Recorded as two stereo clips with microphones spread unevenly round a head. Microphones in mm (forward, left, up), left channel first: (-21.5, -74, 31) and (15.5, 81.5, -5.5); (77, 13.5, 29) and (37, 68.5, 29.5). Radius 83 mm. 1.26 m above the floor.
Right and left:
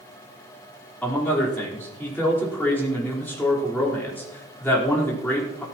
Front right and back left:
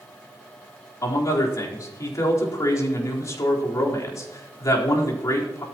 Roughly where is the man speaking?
Ahead.